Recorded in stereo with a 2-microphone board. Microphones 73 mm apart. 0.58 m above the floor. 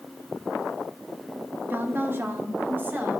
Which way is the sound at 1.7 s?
30° right (ahead or behind).